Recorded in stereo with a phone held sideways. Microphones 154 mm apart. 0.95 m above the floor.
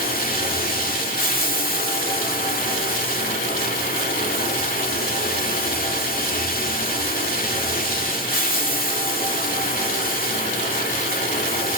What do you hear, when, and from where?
0.0 s running water: 70° left (ahead or behind), 1.8 m